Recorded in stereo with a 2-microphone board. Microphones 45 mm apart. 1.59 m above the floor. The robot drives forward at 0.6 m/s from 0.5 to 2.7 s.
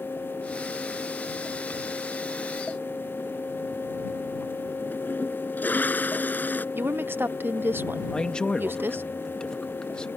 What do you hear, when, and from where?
4.9 s a toilet flushing: 40° left (ahead or behind)
6.8 s a woman speaking: 55° right (ahead or behind)
8.1 s a man speaking: 25° left (ahead or behind)